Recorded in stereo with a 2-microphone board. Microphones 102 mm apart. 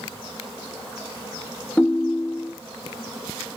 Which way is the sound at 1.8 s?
15° left (ahead or behind).